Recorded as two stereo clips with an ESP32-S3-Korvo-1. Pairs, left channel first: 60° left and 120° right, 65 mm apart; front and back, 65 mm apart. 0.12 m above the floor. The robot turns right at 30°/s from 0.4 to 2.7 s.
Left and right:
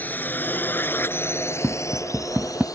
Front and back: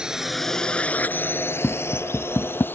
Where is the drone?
110° left; by 2.8 s 55° left.